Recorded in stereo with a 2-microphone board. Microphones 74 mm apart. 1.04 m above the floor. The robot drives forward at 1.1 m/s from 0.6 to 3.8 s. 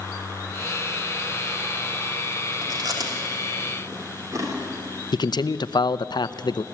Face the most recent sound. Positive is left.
turn(degrees=70)  # may be behind; listen again after turning